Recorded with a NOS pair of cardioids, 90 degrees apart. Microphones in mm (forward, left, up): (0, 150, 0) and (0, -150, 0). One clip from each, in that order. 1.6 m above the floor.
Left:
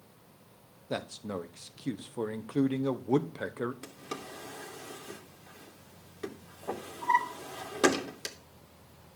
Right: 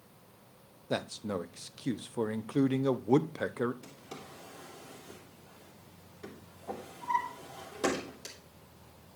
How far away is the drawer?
About 2.5 m.